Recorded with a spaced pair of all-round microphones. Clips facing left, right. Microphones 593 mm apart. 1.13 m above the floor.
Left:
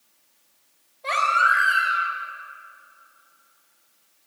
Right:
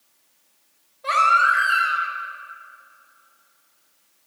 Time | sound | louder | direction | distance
1.0 | a baby crying | right 2 dB | 40° right (ahead or behind) | 5 m